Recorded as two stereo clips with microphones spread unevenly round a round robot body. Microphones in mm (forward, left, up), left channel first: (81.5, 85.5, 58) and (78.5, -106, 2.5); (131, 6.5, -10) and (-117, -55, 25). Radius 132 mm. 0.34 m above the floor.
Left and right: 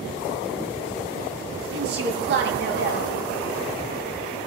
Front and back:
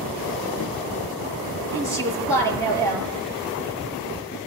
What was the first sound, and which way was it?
A woman speaking, 65° right.